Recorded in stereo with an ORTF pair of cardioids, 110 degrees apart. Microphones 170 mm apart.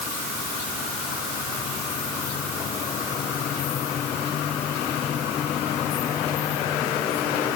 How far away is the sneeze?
I don't hear a sneeze.